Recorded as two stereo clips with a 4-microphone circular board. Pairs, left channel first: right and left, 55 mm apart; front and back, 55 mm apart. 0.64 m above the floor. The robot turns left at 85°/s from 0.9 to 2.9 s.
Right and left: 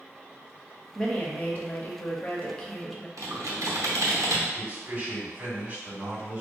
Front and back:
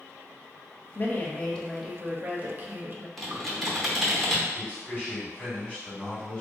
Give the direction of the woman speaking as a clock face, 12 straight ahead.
1 o'clock.